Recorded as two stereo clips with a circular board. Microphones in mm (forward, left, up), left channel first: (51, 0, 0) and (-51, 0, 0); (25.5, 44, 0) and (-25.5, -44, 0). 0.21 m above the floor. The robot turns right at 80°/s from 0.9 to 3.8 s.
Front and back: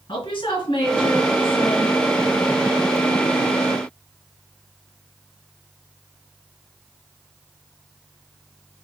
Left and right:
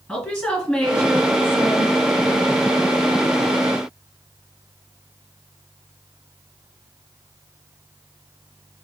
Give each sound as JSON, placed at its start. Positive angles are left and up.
{"t": 0.1, "sound": "a woman speaking", "azimuth_deg": -15, "distance_m": 1.7}